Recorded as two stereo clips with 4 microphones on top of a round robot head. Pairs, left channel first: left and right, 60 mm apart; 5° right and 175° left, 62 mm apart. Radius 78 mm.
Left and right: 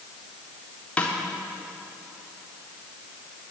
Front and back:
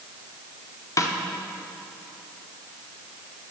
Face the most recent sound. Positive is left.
turn(degrees=20)